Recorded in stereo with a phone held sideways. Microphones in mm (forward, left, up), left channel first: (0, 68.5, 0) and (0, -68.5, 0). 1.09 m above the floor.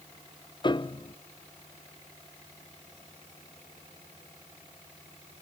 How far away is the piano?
About 0.6 m.